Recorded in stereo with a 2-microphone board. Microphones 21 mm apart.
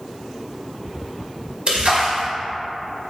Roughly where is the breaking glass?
I don't hear breaking glass.